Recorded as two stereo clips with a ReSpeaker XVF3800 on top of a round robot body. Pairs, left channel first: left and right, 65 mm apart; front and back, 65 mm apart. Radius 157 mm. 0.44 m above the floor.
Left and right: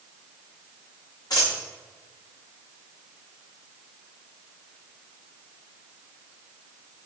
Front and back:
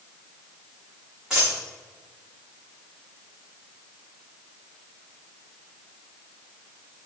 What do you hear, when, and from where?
1.3 s a dropped coin: 100° left, 3.5 m